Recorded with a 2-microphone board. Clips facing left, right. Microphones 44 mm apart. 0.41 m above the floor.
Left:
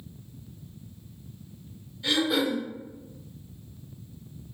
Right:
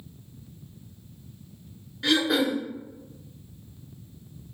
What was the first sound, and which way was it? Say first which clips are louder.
Throat clearing: right 2 dB; 75° right (ahead or behind).